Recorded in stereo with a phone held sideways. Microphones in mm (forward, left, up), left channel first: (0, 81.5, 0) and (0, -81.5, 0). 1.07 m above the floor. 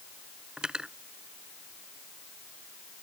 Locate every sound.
0.6 s cutlery clinking: 5° right (ahead or behind)